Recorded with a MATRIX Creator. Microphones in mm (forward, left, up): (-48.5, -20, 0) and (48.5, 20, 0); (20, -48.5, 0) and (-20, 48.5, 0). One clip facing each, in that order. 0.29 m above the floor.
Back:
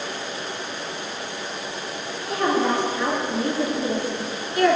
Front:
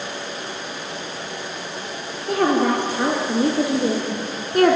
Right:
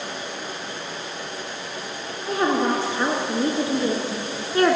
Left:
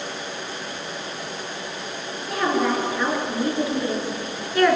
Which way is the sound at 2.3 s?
10° right.